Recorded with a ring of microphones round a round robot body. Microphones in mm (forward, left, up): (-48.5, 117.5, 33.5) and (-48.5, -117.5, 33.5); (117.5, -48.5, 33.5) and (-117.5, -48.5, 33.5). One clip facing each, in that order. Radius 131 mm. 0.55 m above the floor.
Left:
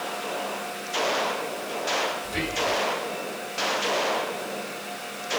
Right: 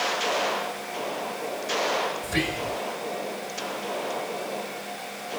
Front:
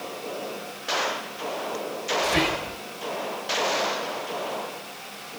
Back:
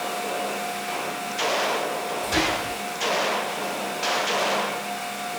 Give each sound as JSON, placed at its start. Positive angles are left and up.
{"t": 2.2, "sound": "whispering", "azimuth_deg": -90, "distance_m": 2.0}